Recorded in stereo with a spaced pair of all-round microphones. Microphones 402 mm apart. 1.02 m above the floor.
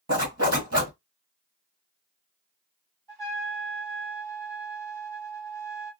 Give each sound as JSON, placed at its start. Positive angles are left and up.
{"t": 0.1, "sound": "a zipper", "side_deg": -35, "distance_m": 1.4}
{"t": 3.1, "sound": "a trumpet", "side_deg": -60, "distance_m": 1.7}